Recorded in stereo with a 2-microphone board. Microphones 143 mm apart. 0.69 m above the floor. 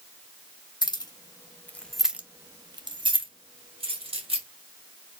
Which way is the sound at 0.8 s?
30° left (ahead or behind).